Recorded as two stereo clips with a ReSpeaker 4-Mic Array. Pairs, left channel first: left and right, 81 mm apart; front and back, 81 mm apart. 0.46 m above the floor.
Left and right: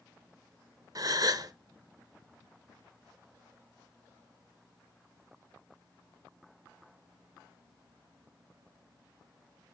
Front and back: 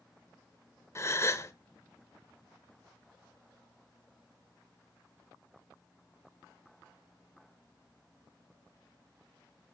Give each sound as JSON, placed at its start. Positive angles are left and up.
{"t": 0.9, "sound": "a gasp", "azimuth_deg": -55, "distance_m": 0.5}